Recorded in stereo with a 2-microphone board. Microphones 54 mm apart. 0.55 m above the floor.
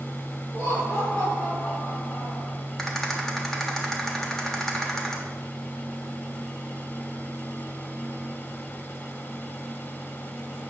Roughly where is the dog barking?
I don't hear a dog barking.